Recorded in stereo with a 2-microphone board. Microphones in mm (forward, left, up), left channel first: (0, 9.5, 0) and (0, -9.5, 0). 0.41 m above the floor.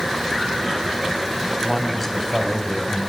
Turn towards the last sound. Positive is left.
turn(degrees=20)  # may be behind; listen again after turning